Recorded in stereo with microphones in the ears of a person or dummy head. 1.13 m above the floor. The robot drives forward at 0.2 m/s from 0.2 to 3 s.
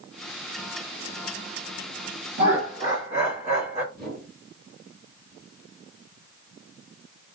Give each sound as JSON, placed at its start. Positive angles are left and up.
{"t": 2.4, "sound": "laughter", "side_deg": -45, "distance_m": 1.3}
{"t": 3.9, "sound": "a whoosh", "side_deg": -5, "distance_m": 1.6}